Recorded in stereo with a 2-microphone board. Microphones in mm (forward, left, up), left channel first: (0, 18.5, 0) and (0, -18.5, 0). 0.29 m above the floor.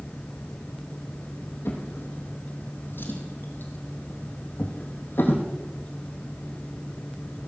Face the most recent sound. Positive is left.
turn(degrees=80)